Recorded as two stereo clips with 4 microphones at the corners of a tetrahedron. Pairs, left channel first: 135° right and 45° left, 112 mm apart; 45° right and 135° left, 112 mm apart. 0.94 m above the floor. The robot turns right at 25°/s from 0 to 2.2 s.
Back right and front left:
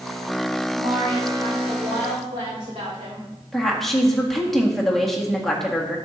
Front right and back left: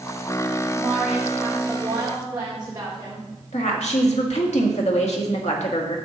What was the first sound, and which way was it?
A woman speaking, 30° left.